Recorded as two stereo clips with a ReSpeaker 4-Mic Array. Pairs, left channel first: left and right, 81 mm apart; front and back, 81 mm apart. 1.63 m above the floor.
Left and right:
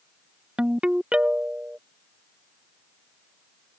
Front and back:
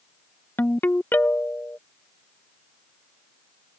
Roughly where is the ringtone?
Ahead right.